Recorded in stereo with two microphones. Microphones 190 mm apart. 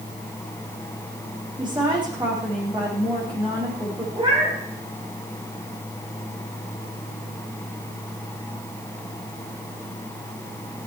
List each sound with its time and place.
1.6 s a woman speaking: 25° right (ahead or behind), 8 m
4.2 s a cat meowing: 25° right (ahead or behind), 8.5 m